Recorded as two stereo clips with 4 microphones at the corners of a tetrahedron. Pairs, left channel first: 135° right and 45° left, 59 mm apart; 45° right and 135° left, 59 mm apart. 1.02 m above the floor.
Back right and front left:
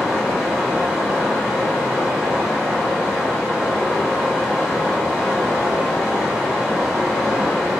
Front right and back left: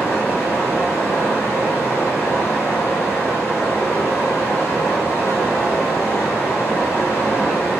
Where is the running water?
35° right, 1.2 m.